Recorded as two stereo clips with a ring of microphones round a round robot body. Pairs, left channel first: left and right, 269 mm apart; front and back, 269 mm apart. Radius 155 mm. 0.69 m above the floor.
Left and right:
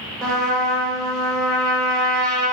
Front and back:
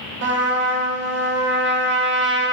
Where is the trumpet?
175° left, 1.3 m.